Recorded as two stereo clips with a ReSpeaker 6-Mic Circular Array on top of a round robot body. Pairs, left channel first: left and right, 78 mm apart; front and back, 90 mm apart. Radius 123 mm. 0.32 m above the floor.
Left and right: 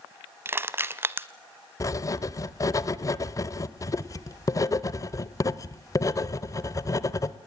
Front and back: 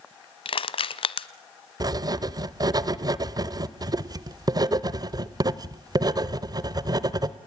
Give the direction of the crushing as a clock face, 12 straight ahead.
1 o'clock.